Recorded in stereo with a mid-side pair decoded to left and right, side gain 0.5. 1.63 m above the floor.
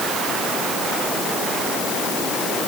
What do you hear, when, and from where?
Only background noise.